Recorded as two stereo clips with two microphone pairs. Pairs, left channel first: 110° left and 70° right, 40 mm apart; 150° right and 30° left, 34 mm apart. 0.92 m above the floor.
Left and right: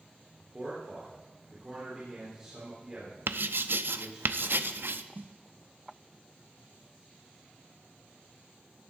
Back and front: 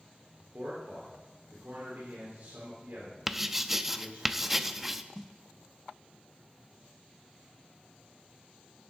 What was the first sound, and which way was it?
A man speaking, 5° left.